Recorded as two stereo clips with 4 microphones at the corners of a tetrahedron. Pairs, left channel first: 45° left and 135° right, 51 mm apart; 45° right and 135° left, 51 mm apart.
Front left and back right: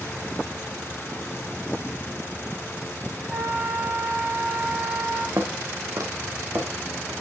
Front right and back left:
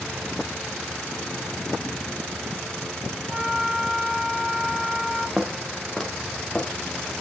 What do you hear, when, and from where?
3.3 s a flute: 165° right, 1.6 m
5.4 s footsteps: 150° right, 1.5 m; by 7.1 s 110° right, 3 m